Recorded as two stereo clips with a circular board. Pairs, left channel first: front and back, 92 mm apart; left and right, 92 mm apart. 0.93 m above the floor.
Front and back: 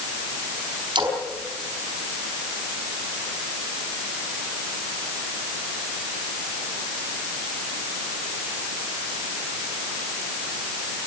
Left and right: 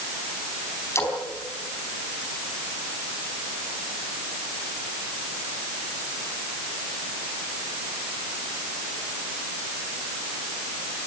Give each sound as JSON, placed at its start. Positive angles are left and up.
{"t": 0.9, "sound": "a splash", "azimuth_deg": 150, "distance_m": 4.5}